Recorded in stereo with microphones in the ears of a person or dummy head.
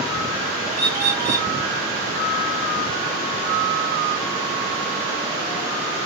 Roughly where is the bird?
Centre.